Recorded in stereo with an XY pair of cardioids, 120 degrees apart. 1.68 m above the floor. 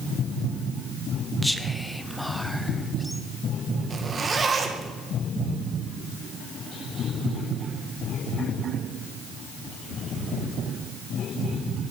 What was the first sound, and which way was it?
Whispering, straight ahead.